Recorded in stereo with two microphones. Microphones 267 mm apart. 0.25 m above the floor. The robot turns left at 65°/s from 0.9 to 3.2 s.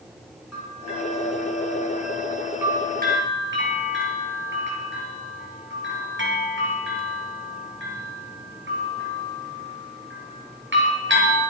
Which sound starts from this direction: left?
A bell, at 0.5 s.